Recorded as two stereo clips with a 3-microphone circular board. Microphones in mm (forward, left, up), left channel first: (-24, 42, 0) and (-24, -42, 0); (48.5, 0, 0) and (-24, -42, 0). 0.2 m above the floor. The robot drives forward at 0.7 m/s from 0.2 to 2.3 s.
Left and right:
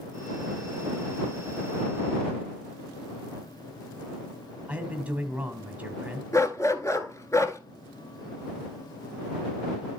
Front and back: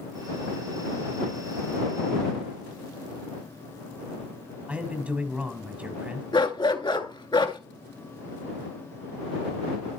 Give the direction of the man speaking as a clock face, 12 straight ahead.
4 o'clock.